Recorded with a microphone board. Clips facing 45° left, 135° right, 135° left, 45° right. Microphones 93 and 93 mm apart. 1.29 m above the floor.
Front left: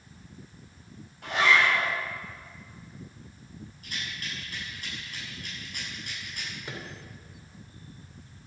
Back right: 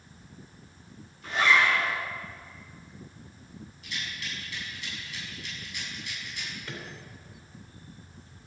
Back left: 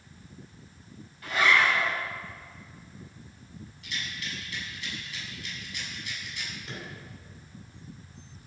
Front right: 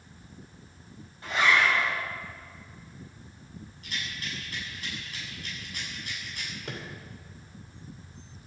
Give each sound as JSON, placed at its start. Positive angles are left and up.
{"t": 1.2, "sound": "a zipper", "azimuth_deg": 20, "distance_m": 7.5}
{"t": 3.8, "sound": "a rattle", "azimuth_deg": 0, "distance_m": 7.0}
{"t": 6.7, "sound": "a microwave", "azimuth_deg": -25, "distance_m": 3.0}